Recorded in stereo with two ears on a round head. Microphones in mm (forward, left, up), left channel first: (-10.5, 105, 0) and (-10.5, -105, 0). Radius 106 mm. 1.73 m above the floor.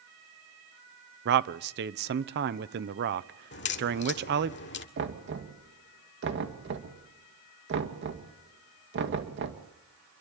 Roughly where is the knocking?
Right.